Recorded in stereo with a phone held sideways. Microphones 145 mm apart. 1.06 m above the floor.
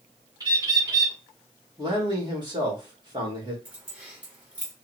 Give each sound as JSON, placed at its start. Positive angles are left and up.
{"t": 0.4, "sound": "a bird", "side_deg": -25, "distance_m": 1.7}
{"t": 1.8, "sound": "a man speaking", "side_deg": -30, "distance_m": 1.7}
{"t": 3.6, "sound": "keys jangling", "side_deg": -10, "distance_m": 2.0}